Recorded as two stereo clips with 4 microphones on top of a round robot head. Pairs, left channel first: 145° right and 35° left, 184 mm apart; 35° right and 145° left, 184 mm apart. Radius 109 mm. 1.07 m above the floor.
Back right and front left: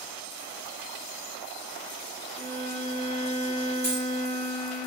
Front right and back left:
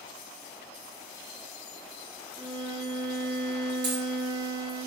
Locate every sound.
2.4 s a violin: 80° left, 1.1 m
3.8 s a dropped coin: 105° left, 2.5 m